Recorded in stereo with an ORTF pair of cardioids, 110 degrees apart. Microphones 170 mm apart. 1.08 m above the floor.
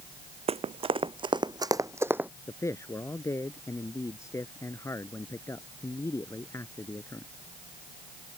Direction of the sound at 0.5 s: 40° right.